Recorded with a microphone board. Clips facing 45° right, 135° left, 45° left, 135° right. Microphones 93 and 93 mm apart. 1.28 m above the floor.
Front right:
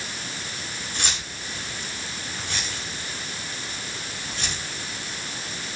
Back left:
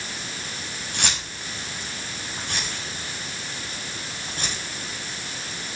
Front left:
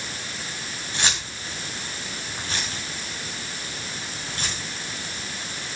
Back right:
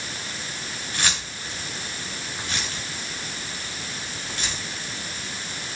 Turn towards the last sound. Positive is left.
turn(degrees=90)